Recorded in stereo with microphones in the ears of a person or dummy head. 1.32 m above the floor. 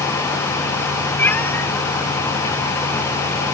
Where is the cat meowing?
15° left (ahead or behind), 1.6 m.